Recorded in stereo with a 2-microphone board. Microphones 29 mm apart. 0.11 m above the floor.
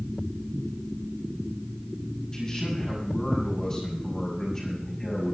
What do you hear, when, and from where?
2.3 s a man speaking: 25° left (ahead or behind), 6.5 m